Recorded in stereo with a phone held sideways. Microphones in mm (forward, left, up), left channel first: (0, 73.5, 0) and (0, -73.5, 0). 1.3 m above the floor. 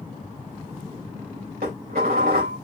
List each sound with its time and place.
1.6 s dishes clattering: 80° right, 2.5 m